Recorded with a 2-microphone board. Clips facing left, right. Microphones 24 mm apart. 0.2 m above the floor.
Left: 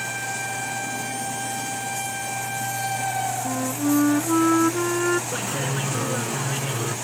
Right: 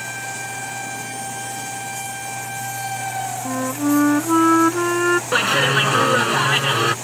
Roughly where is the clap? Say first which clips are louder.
Right 10 dB; right.